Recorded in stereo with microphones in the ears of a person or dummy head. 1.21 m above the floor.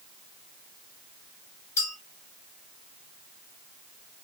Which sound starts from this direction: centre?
A clink, at 1.8 s.